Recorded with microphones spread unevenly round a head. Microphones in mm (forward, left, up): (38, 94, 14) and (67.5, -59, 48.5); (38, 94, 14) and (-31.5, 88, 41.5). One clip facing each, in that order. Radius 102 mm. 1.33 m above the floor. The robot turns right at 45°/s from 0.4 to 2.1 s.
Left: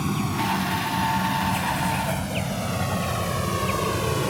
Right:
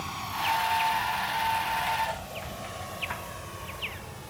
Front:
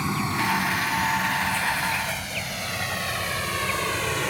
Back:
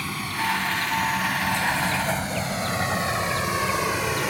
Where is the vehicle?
75° left; by 4.3 s 105° left.